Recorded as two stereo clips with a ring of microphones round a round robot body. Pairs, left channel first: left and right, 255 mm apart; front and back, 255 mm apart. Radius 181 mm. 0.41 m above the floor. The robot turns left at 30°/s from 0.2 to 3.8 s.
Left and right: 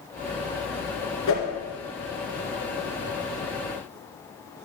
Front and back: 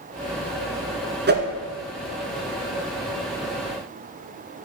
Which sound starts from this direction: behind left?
A whoosh, at 1.3 s.